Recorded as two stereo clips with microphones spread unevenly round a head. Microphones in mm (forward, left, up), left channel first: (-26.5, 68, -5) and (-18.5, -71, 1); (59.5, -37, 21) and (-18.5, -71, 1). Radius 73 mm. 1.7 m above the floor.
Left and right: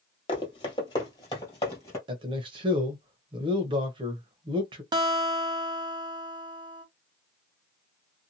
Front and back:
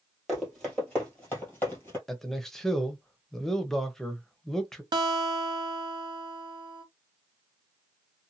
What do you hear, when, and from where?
0.3 s running footsteps: 85° left, 1.9 m; by 2.0 s 30° left, 2 m
2.1 s a man speaking: 50° right, 0.8 m
4.9 s a guitar: 130° right, 0.7 m